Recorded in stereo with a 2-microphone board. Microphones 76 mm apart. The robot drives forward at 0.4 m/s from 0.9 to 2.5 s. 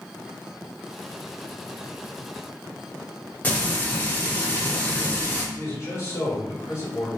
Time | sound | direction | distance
3.4 | frying | 20° left (ahead or behind) | 0.9 m
5.5 | a man speaking | 35° left (ahead or behind) | 1.6 m